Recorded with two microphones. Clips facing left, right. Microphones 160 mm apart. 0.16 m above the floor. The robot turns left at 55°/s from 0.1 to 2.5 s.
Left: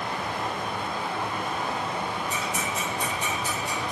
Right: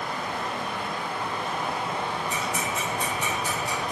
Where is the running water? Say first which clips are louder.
Left 1 dB; 80° left, 0.8 m; by 3.9 s 50° right, 0.8 m.